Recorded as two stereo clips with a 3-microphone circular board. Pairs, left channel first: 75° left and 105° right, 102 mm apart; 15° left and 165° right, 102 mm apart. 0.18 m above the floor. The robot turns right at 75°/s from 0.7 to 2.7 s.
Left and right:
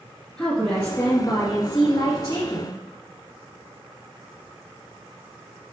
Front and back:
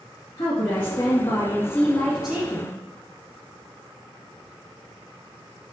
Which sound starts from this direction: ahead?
A woman speaking, at 0.4 s.